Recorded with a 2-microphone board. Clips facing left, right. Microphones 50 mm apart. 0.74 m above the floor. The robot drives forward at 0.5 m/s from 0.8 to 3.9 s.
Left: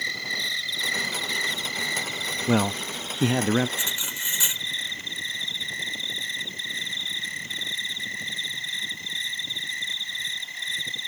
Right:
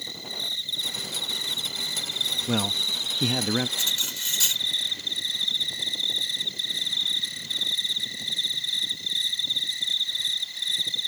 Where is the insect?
80° left; by 11.1 s 40° left (ahead or behind).